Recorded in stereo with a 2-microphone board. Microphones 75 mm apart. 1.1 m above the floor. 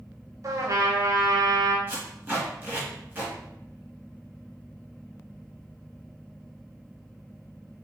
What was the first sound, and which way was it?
A trumpet, 45° right (ahead or behind).